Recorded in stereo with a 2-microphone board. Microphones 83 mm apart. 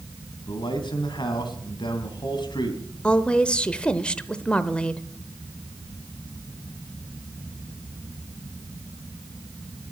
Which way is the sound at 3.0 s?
15° left (ahead or behind).